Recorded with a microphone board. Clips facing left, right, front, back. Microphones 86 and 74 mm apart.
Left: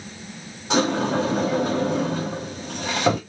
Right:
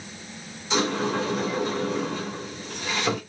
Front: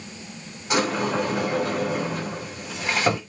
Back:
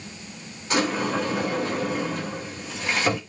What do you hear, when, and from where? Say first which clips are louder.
0.7 s a sliding door: left 4 dB, front 1 dB; 75° left, 3.5 m